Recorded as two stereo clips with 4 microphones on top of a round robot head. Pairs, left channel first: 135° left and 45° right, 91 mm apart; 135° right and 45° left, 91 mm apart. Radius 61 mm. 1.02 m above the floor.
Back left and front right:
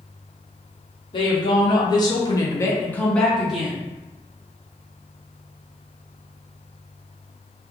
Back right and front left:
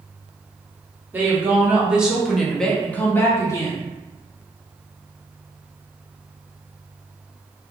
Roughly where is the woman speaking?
Left.